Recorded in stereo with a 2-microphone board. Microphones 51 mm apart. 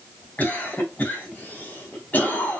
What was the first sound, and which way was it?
A cough, 35° left (ahead or behind).